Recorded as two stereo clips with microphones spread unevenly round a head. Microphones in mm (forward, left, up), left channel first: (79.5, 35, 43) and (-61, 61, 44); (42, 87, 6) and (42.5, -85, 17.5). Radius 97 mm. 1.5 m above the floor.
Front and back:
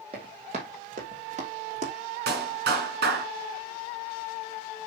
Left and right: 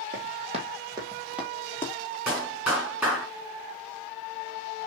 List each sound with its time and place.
0.1 s running footsteps: 130° right, 2.5 m; by 1.9 s 165° left, 1.8 m
2.3 s a clap: 170° right, 3 m